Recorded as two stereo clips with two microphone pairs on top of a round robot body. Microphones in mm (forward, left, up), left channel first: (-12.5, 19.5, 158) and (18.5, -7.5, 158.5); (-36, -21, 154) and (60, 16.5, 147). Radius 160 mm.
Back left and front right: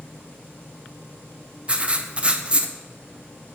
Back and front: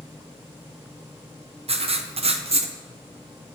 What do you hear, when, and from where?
1.7 s writing: 25° left, 0.7 m